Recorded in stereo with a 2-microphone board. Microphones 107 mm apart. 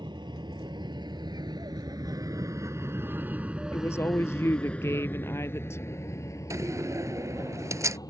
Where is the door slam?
30° right (ahead or behind).